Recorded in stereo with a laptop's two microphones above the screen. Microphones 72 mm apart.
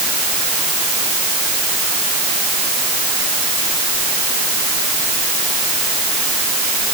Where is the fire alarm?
No fire alarm in this recording.